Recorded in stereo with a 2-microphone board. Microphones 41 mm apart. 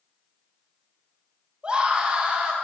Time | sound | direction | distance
1.6 | a scream | 25° right (ahead or behind) | 2 m